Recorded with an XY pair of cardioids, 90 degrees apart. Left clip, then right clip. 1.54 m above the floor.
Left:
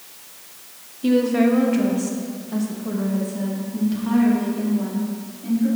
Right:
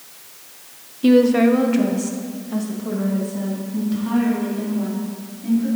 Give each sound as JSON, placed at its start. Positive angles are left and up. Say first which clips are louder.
{"t": 1.0, "sound": "a woman speaking", "louder": "right 4 dB", "azimuth_deg": -45, "distance_m": 0.9}